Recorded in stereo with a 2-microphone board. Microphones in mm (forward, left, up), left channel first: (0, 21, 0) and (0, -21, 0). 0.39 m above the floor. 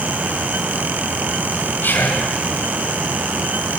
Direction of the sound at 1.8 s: 55° left (ahead or behind).